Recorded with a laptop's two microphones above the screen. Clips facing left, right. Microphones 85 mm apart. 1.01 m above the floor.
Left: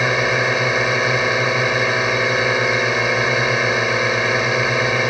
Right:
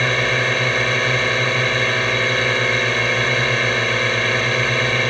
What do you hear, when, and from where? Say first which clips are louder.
0.0 s a drone: left 2 dB; 10° left (ahead or behind)